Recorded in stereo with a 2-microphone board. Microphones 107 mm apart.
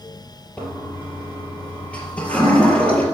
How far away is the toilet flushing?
About 3.5 m.